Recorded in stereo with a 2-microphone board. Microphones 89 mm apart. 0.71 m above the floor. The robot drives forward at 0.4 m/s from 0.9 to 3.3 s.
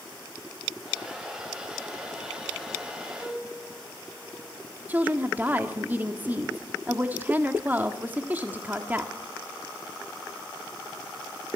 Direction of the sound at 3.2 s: Centre (ahead or behind).